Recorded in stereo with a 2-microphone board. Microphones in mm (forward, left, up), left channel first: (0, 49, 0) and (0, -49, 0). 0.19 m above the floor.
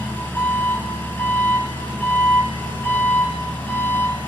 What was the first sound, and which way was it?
An engine running, 20° left (ahead or behind).